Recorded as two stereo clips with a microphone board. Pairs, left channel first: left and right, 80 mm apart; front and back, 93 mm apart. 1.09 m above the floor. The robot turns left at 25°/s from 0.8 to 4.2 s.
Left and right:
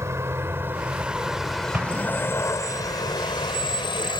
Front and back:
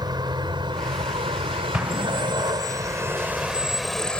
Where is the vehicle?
140° right; by 4.2 s 80° left.